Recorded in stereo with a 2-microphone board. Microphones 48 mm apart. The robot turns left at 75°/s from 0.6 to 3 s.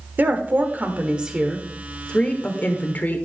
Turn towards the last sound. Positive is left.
turn(degrees=75)